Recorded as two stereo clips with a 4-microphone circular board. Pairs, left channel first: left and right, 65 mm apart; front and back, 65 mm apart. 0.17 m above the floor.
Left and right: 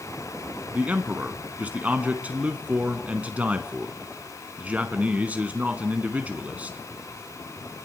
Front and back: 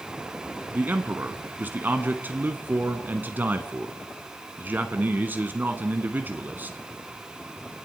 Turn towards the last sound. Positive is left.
turn(degrees=-140)